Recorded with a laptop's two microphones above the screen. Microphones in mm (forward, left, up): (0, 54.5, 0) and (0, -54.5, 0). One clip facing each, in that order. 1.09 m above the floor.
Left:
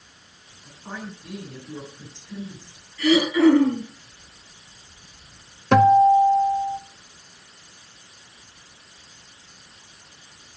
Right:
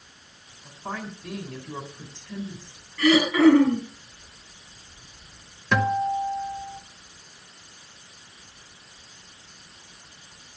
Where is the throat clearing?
65° right (ahead or behind), 7.5 m.